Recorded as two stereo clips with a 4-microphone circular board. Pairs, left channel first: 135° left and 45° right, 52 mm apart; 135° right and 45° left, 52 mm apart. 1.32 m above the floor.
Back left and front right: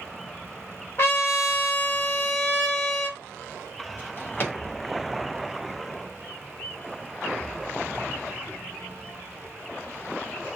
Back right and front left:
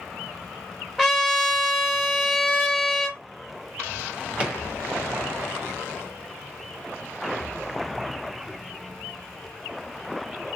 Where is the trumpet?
130° left, 1.4 m.